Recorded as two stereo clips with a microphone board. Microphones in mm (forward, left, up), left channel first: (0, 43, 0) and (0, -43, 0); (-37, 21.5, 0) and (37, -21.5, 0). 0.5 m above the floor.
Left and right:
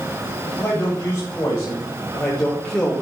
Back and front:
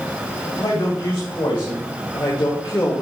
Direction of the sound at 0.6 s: 150° left.